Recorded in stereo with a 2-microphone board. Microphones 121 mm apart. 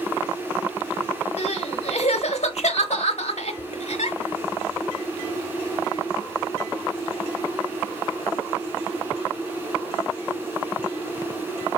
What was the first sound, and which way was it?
Crying, 75° left (ahead or behind).